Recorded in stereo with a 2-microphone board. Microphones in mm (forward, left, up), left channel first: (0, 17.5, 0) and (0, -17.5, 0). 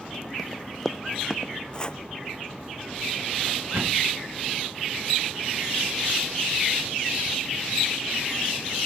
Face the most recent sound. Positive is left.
turn(degrees=-70)  # may be behind; listen again after turning